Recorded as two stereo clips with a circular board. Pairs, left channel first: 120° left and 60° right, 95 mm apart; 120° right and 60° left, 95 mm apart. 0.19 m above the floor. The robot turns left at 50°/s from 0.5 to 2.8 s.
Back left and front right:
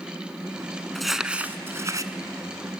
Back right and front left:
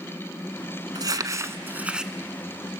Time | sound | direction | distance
0.9 | crumpling | 35° left | 1.0 m